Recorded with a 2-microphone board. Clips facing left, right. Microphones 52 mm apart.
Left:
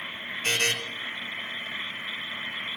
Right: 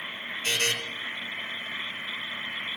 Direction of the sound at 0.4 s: 50° left (ahead or behind).